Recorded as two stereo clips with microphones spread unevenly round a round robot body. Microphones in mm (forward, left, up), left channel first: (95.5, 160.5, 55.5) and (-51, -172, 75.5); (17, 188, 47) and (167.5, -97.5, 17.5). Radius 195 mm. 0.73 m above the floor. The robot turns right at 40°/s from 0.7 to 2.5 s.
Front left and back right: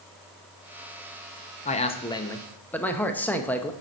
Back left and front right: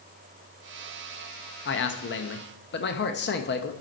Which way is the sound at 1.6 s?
110° left.